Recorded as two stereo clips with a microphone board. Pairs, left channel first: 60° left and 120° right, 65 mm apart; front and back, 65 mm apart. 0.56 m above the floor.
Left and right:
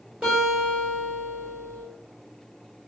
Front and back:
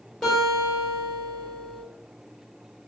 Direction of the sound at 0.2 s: 75° right.